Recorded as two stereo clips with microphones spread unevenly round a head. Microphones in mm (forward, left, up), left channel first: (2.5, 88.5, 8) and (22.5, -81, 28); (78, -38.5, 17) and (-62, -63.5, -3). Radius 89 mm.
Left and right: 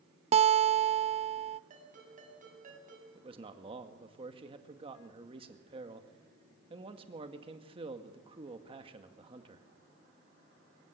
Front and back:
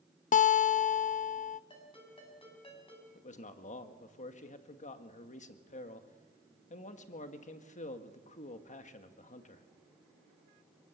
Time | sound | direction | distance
0.3 | a guitar | 25° right | 0.6 m
1.7 | a ringtone | 40° right | 6.5 m
3.1 | a man speaking | 25° right | 2 m